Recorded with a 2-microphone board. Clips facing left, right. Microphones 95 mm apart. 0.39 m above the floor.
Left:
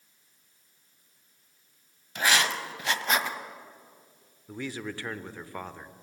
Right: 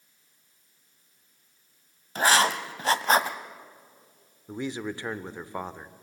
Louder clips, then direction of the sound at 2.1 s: Right 4 dB; 35° right (ahead or behind).